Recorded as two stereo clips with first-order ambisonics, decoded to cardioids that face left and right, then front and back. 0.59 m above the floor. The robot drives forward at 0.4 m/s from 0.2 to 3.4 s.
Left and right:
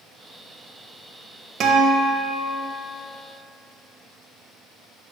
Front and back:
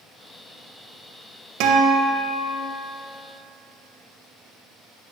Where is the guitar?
150° right, 0.7 m; by 2.6 s 160° right, 1.0 m.